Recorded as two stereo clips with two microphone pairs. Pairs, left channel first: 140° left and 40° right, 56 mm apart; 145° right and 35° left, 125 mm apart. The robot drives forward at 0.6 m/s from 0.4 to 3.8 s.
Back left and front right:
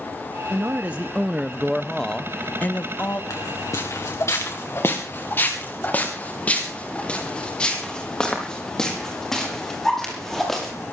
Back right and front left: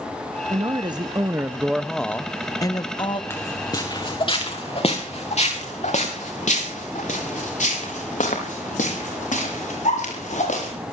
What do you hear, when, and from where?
0.5 s a man speaking: 5° left, 1.0 m; by 3.2 s 175° left, 1.0 m
3.3 s footsteps: 150° left, 3 m; by 10.7 s 135° right, 8 m